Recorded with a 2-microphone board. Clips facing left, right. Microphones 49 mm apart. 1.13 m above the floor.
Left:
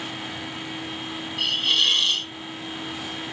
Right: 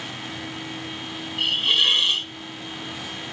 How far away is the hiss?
About 0.9 m.